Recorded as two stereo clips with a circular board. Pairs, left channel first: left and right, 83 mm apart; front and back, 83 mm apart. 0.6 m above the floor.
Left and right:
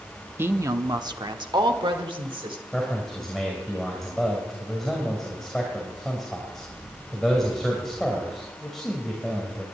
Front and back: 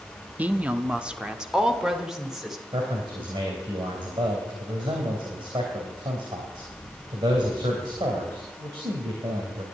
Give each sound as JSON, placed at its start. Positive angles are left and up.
{"t": 0.4, "sound": "a woman speaking", "azimuth_deg": -125, "distance_m": 0.8}
{"t": 2.7, "sound": "a man speaking", "azimuth_deg": 175, "distance_m": 3.0}